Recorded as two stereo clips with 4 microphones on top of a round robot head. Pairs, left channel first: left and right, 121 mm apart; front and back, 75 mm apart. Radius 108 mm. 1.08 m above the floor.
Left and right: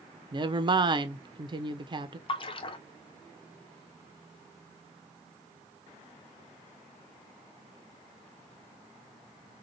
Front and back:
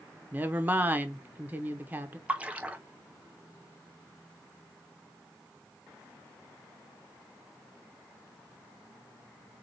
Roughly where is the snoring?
I don't hear snoring.